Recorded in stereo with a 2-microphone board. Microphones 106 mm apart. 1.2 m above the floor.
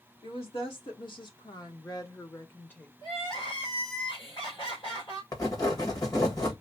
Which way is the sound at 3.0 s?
55° left (ahead or behind).